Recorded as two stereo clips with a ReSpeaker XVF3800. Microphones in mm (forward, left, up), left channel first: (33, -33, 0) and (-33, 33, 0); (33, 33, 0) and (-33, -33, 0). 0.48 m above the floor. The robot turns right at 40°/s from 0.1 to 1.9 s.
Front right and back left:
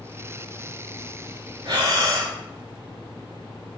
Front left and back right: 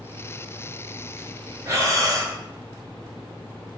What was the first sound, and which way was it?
Breathing, 165° left.